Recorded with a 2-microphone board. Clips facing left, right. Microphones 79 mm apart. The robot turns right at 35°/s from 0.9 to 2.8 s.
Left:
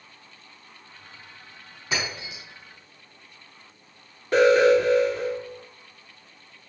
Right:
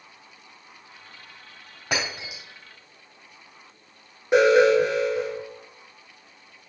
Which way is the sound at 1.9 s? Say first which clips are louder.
Right 1 dB; 60° right (ahead or behind).